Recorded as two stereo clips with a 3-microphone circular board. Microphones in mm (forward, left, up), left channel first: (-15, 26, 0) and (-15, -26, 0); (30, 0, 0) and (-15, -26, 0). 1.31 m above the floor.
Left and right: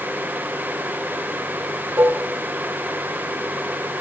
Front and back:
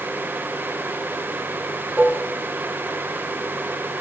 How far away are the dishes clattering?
About 3.5 m.